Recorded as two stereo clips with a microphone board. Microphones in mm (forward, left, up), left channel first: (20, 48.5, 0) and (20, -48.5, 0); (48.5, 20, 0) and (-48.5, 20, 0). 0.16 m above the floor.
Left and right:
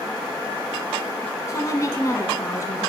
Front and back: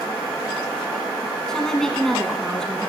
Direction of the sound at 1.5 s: 80° left.